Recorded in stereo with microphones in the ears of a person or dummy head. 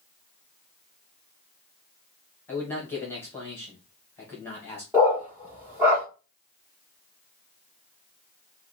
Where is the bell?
No bell in this recording.